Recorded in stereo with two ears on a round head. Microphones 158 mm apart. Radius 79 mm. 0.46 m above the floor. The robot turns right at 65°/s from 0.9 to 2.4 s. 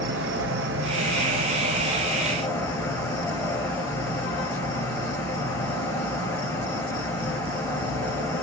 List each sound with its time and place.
0.0 s an insect: 80° right, 1.2 m; by 8.4 s 15° left, 1.2 m